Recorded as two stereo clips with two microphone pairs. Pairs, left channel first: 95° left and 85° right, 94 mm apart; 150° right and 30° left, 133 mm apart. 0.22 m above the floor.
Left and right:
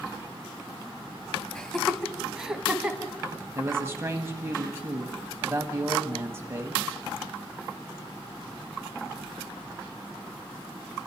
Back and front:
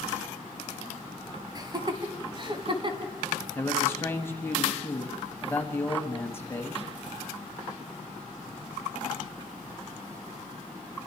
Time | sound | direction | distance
1.6 | laughter | 20° left | 1.4 m
3.5 | a man speaking | 105° right | 1.6 m